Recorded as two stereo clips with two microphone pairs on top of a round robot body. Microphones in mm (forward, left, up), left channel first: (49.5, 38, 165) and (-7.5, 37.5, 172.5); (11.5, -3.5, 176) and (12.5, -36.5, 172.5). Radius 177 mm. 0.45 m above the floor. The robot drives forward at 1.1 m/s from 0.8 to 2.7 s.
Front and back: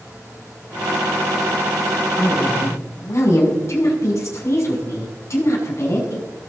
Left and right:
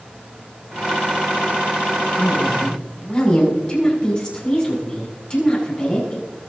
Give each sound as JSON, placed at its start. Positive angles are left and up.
{"t": 2.2, "sound": "a woman speaking", "azimuth_deg": 25, "distance_m": 7.5}